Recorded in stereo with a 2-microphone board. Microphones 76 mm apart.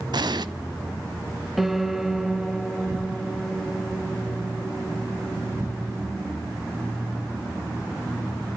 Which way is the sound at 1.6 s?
Centre (ahead or behind).